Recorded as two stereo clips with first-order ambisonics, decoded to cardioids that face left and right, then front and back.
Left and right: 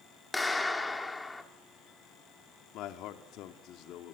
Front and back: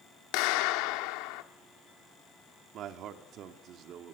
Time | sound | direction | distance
0.3 | a clap | 5° left | 2 m
2.7 | a man speaking | 130° left | 2.5 m